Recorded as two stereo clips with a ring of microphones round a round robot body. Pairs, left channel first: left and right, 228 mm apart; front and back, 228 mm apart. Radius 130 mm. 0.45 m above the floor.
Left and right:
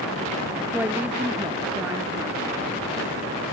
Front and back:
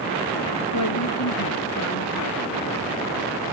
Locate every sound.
0.7 s a woman speaking: 5° right